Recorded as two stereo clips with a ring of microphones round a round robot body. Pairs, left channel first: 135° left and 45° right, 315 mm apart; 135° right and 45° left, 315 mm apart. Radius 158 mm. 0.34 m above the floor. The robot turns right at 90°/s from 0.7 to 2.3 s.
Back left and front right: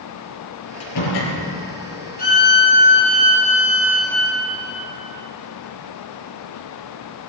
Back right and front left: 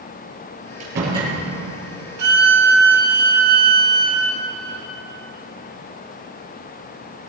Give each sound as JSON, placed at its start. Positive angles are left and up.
{"t": 0.8, "sound": "a door slam", "azimuth_deg": 90, "distance_m": 5.0}
{"t": 2.2, "sound": "a violin", "azimuth_deg": 75, "distance_m": 1.8}